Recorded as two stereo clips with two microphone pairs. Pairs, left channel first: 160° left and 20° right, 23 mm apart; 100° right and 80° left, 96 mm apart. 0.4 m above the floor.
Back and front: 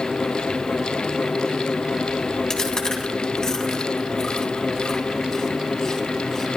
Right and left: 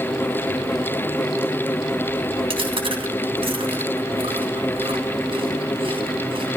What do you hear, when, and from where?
2.5 s chewing: 100° left, 2.5 m